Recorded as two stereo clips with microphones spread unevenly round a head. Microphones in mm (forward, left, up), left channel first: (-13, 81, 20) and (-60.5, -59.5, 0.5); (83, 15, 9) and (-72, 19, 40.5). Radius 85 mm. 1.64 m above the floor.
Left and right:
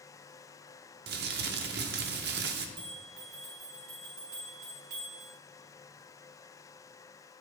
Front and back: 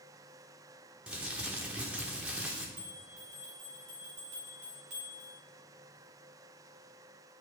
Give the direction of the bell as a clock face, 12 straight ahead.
4 o'clock.